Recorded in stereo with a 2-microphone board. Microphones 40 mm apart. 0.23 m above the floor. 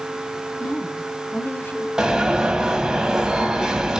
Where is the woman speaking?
50° left (ahead or behind), 2 m.